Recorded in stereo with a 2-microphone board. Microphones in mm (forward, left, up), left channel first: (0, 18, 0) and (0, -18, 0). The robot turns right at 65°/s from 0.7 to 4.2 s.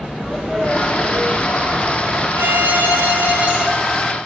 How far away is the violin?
About 1.9 m.